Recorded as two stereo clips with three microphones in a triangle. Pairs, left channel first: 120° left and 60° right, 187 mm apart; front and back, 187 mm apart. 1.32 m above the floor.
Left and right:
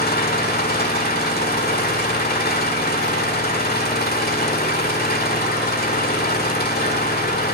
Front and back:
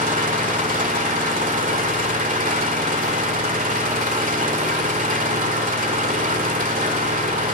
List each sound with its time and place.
0.0 s an engine running: 145° left, 1.7 m